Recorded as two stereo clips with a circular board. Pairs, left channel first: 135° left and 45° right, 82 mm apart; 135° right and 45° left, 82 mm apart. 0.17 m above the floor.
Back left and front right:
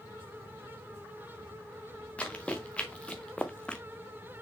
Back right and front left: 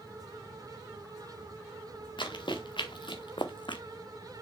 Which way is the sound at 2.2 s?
150° right.